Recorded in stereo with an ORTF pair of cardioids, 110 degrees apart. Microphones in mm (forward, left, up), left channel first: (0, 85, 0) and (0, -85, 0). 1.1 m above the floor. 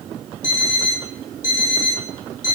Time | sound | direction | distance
0.4 | an alarm clock | 55° left | 1.0 m